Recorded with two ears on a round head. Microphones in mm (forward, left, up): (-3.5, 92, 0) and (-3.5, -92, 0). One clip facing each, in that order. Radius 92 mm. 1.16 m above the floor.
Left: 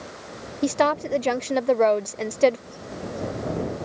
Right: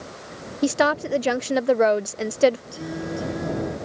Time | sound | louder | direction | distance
0.6 | a woman speaking | right 1 dB | 5° right (ahead or behind) | ?
2.7 | singing | right 4 dB | 75° right (ahead or behind) | ?